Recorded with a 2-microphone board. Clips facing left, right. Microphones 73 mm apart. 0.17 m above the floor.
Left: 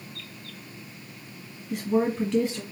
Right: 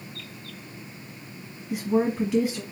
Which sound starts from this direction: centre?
A woman speaking, at 1.7 s.